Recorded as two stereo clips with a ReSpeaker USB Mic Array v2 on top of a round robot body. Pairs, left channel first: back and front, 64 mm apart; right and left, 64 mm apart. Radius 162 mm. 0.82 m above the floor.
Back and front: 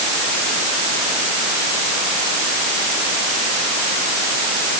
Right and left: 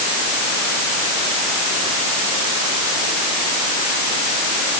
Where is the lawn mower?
No lawn mower in this recording.